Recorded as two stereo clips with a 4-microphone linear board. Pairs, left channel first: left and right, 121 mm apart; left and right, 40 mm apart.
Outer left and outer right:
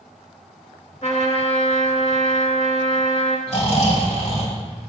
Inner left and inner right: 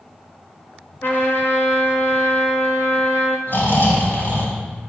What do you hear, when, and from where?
1.0 s a trumpet: 75° left (ahead or behind), 3 m
3.5 s snoring: 65° left (ahead or behind), 5 m